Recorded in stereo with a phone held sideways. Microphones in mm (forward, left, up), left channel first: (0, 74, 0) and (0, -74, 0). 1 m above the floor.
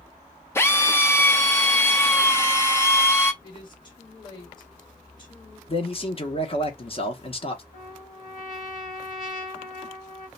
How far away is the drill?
About 0.5 m.